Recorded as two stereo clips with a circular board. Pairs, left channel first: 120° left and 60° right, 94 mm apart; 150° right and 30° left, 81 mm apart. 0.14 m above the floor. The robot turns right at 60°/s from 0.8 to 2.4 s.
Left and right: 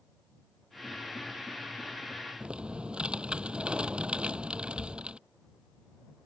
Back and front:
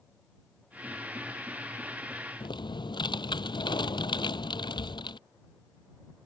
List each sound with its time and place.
2.4 s typing on a keyboard: 140° right